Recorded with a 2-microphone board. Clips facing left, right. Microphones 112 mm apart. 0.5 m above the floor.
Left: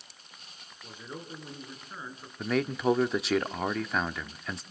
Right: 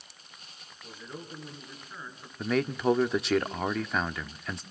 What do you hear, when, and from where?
0.8 s a man speaking: 20° left (ahead or behind), 5.5 m
2.4 s a man speaking: centre (ahead or behind), 0.7 m